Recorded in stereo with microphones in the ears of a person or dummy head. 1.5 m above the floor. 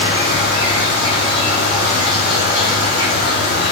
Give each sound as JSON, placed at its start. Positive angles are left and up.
{"t": 0.0, "sound": "an insect", "side_deg": -35, "distance_m": 1.5}